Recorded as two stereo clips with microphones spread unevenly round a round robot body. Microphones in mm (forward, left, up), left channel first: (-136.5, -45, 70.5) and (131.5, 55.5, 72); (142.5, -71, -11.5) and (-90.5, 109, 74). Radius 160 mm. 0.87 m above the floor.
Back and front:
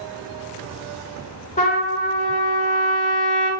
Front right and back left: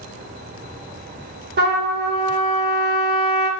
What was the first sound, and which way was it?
A trumpet, 145° left.